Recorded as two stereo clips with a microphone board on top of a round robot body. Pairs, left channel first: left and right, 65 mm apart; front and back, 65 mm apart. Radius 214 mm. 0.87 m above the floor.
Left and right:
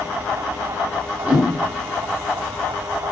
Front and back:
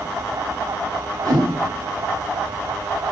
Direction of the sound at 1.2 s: 155° right.